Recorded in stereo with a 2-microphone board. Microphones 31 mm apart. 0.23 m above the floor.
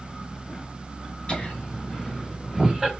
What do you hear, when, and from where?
1.3 s laughter: 30° left (ahead or behind), 1.5 m; by 2.9 s 15° right (ahead or behind), 1.1 m